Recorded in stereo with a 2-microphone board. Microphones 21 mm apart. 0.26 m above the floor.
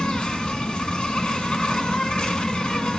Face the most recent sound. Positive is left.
turn(degrees=55)  # may be behind; listen again after turning